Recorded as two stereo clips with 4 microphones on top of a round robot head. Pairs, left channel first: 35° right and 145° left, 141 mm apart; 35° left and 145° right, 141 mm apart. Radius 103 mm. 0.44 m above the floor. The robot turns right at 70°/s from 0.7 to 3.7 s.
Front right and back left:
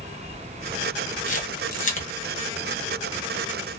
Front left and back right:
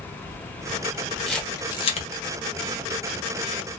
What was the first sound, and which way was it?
A camera shutter, 55° right.